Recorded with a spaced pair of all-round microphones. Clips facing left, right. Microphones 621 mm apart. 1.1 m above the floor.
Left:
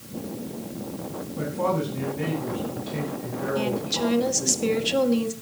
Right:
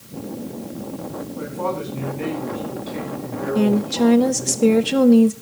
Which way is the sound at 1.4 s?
45° left (ahead or behind).